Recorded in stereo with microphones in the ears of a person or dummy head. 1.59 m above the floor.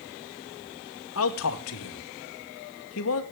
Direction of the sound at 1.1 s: 80° left.